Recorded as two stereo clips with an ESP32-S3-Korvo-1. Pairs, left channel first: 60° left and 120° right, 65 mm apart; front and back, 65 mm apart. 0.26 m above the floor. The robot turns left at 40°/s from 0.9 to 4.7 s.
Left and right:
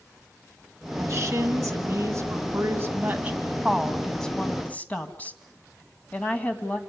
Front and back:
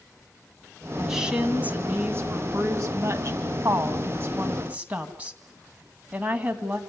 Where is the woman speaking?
95° right, 2.5 m; by 6.8 s 115° left, 2.5 m.